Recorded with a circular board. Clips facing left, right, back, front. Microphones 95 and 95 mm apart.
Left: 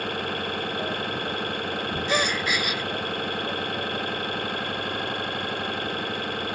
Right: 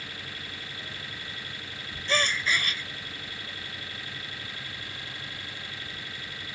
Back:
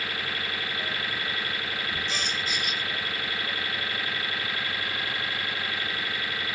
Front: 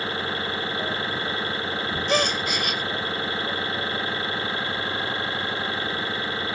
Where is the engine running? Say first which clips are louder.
Left 14 dB, front 5 dB; 60° left.